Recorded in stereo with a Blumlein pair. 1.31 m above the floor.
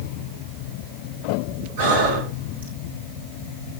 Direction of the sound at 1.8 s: 60° right.